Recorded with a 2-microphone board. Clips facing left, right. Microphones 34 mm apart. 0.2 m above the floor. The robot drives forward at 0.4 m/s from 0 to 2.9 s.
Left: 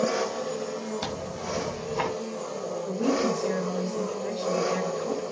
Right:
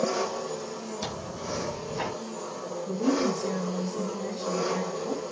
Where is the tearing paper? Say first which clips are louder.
Left 2 dB; 30° left (ahead or behind), 1.8 m; by 2.1 s 35° left (ahead or behind), 1.6 m.